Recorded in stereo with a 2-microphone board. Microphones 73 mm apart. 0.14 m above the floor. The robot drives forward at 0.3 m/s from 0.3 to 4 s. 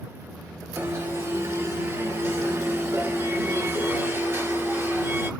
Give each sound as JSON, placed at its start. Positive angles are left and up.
{"t": 0.8, "sound": "an alarm", "side_deg": -35, "distance_m": 1.9}